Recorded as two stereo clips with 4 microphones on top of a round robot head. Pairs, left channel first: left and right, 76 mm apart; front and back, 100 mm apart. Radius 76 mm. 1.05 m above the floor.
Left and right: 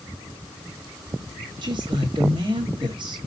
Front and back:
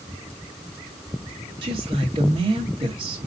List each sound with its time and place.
1.6 s a woman speaking: 130° right, 1.8 m